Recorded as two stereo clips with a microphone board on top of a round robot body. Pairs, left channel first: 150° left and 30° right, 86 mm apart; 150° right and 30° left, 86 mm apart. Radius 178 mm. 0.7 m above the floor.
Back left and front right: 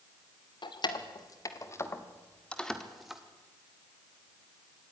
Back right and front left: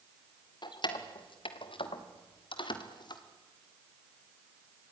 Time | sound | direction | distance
0.6 | keys jangling | straight behind | 2 m